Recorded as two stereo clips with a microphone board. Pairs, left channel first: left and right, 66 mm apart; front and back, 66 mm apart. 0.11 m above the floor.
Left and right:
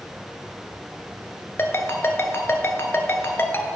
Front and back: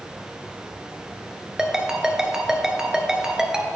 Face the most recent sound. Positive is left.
turn(degrees=105)